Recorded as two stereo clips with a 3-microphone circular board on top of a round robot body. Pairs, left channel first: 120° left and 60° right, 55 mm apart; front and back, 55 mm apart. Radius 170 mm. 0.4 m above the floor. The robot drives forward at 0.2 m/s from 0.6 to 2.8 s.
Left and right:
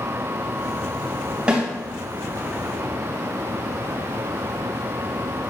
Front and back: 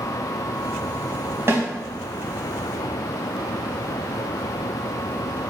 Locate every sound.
1.5 s a snare drum: 135° right, 3 m